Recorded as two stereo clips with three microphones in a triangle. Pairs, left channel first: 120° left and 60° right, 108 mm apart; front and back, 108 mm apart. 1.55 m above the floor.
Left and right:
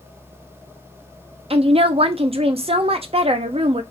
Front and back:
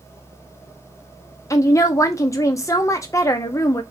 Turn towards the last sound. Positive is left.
turn(degrees=-55)